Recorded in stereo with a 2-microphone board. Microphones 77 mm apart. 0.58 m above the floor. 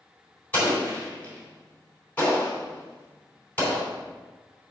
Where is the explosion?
20° left (ahead or behind), 3 m.